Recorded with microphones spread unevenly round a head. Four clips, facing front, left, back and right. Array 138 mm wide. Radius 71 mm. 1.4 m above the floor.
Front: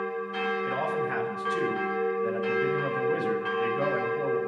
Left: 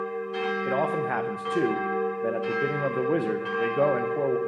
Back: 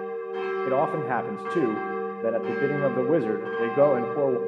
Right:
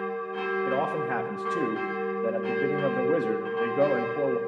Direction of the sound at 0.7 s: 175° left.